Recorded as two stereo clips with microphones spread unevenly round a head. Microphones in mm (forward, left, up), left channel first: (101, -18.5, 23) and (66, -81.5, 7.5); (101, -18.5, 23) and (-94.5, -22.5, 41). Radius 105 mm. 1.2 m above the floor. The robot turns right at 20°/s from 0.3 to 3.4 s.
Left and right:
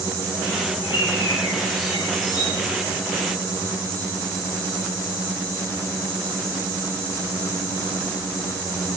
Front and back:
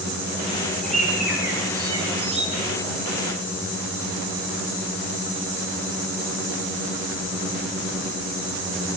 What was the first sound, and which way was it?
A bird, 90° left.